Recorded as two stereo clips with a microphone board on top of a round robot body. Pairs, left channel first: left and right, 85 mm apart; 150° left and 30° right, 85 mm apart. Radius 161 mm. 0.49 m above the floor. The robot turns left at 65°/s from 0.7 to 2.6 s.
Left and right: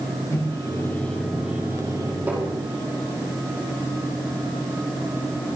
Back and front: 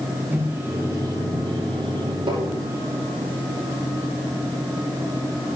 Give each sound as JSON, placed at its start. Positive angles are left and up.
{"t": 0.3, "sound": "a microwave", "azimuth_deg": 40, "distance_m": 2.5}
{"t": 2.3, "sound": "tapping", "azimuth_deg": -20, "distance_m": 5.5}